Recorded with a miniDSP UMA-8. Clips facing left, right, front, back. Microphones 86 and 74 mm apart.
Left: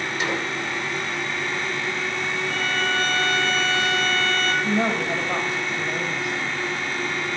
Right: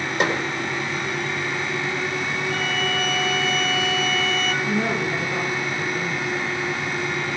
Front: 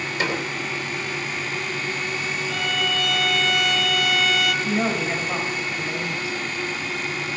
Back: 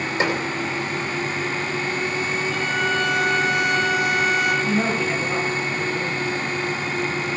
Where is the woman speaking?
75° left, 3.5 m.